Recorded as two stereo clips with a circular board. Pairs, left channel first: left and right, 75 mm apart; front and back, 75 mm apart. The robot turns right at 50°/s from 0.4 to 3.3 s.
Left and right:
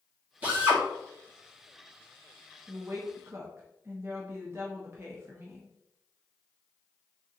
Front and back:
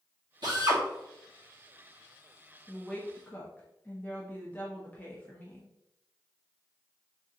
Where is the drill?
160° right, 1.7 m; by 0.8 s 140° right, 1.7 m.